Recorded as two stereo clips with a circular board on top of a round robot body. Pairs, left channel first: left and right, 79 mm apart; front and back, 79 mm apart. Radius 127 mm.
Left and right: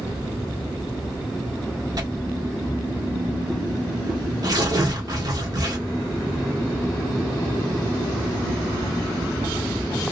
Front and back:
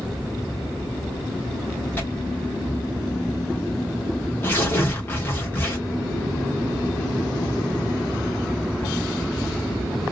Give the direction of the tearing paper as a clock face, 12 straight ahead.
2 o'clock.